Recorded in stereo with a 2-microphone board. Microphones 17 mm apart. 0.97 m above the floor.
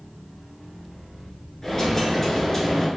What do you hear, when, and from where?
1.6 s a dropped coin: 20° left (ahead or behind), 1.6 m